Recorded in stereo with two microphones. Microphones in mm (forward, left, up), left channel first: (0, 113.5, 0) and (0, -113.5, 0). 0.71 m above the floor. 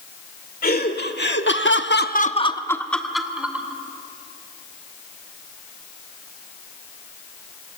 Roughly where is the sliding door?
I don't hear a sliding door.